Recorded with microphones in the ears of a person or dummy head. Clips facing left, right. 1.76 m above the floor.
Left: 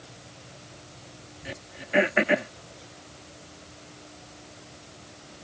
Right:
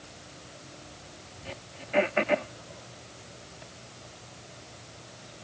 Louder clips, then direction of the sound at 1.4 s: Left 2 dB; 25° left (ahead or behind).